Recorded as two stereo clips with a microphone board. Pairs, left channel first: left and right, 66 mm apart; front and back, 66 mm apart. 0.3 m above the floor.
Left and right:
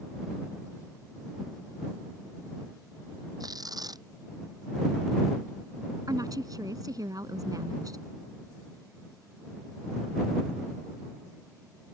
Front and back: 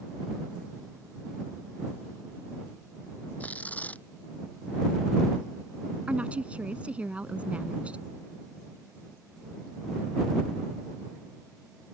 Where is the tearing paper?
70° right.